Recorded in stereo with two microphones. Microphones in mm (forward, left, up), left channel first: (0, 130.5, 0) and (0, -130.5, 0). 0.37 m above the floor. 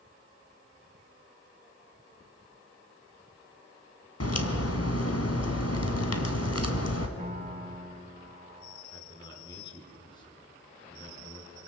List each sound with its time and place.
4.2 s a crack: 70° left (ahead or behind), 2 m
7.2 s a piano: 25° right (ahead or behind), 4 m
8.9 s a man speaking: 15° left (ahead or behind), 5.5 m